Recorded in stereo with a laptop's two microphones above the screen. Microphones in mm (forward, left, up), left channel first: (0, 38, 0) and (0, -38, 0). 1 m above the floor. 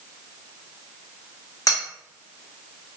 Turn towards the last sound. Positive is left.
turn(degrees=50)  # may be behind; listen again after turning